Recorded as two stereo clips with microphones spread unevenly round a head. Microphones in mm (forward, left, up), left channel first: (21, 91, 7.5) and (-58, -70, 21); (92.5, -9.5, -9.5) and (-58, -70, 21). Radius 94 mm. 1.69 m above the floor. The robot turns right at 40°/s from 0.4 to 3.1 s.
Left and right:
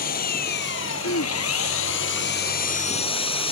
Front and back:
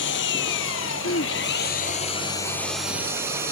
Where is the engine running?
15° left; by 3.5 s 125° left.